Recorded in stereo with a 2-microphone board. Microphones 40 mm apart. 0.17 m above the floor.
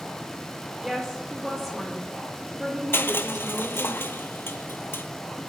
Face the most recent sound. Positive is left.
turn(degrees=80)